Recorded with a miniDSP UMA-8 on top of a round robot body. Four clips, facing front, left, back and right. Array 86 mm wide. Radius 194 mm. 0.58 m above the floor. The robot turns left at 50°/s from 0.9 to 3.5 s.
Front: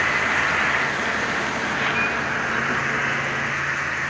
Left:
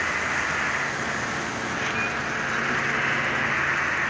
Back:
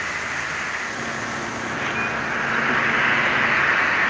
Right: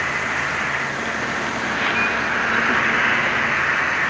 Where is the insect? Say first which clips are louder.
Right 3 dB, front 6 dB; 20° right, 1.1 m; by 4.1 s 150° right, 1.1 m.